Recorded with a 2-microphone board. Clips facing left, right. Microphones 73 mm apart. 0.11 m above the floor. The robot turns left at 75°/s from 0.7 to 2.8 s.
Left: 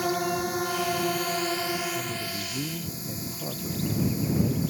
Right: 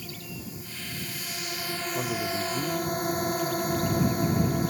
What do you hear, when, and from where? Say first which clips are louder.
0.0 s a drone: left 15 dB; 95° left; by 4.7 s 60° right
1.9 s a man speaking: right 3 dB; 135° right; by 4.6 s 160° left